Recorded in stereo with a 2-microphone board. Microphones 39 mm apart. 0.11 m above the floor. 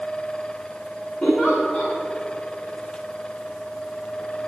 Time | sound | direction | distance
1.2 | a giggle | 25° left (ahead or behind) | 3.5 m